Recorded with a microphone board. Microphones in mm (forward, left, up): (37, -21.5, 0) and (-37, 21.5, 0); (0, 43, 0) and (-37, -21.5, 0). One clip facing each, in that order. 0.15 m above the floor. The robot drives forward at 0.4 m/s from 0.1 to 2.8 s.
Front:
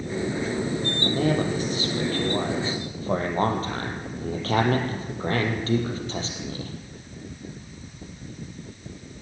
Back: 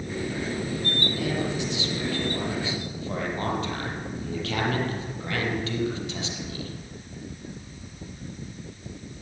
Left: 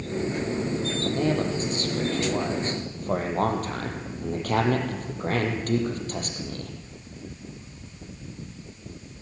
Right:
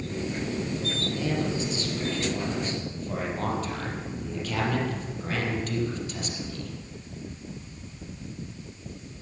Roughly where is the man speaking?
Ahead.